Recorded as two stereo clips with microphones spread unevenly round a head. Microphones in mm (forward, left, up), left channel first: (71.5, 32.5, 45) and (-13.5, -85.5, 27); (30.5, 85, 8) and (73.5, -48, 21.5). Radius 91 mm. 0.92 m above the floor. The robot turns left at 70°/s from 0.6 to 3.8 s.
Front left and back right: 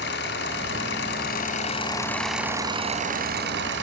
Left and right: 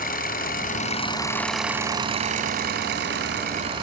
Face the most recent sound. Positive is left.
turn(degrees=-140)